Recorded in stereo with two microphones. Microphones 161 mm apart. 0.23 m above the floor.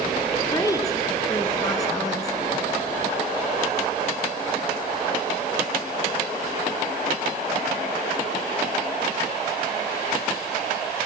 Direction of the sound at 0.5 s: 20° left (ahead or behind).